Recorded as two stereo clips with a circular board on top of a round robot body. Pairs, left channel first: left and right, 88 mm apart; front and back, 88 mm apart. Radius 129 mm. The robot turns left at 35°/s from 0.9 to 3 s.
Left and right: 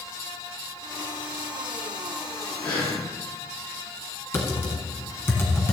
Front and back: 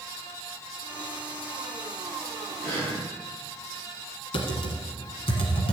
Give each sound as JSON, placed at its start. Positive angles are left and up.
{"t": 2.6, "sound": "breathing", "azimuth_deg": 65, "distance_m": 5.0}
{"t": 4.3, "sound": "typing on a keyboard", "azimuth_deg": 25, "distance_m": 1.2}